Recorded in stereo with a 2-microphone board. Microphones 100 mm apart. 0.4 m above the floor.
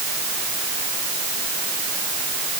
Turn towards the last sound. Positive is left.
No sound to turn to.